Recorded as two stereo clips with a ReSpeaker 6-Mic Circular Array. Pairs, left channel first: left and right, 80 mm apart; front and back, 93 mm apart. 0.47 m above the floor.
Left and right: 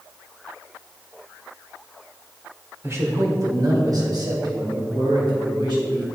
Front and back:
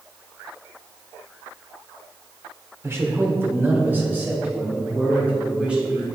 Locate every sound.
2.8 s a man speaking: 130° right, 1.1 m; by 6.0 s 105° right, 2.5 m